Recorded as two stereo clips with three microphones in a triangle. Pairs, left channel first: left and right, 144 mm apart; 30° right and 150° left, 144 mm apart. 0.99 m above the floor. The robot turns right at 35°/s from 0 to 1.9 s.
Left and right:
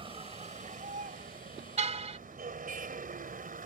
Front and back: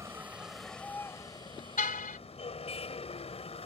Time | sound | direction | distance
0.0 | a vehicle | 140° right | ?
1.8 | a car horn | 50° right | ?